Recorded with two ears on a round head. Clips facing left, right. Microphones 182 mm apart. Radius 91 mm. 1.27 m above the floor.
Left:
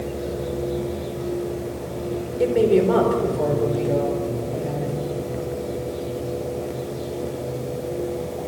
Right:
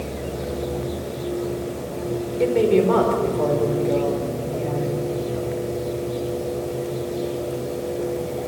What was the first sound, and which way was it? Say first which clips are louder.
A woman speaking: even; 5° left (ahead or behind).